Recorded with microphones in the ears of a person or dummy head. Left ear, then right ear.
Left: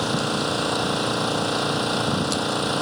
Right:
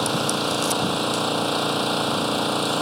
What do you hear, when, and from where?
0.0 s an engine running: 5° right (ahead or behind)